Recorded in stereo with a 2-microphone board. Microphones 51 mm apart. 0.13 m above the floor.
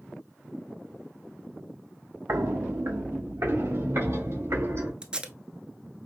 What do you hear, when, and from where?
2.3 s footsteps: 80° right, 0.9 m; by 4.9 s 65° right (ahead or behind), 3 m
5.0 s tape being pulled: 20° right (ahead or behind), 0.7 m